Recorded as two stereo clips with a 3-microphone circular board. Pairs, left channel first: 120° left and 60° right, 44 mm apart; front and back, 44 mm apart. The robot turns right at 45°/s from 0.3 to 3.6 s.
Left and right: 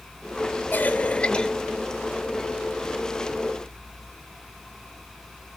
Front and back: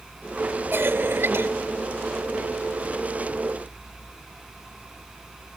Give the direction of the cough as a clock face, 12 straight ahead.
7 o'clock.